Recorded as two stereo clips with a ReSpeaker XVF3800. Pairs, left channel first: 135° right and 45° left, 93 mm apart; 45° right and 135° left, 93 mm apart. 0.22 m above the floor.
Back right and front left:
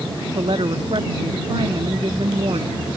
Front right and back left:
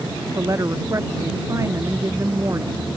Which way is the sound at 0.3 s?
75° left.